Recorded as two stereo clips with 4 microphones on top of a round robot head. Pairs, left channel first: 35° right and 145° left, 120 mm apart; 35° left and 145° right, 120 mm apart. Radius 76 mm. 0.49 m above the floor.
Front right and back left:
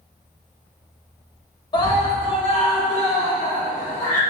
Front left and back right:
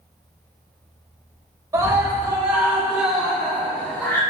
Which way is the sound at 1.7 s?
80° right.